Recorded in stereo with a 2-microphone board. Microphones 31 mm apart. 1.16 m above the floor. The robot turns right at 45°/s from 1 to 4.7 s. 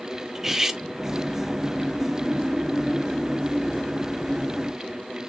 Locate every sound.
0.3 s cutlery clinking: 15° right (ahead or behind), 0.5 m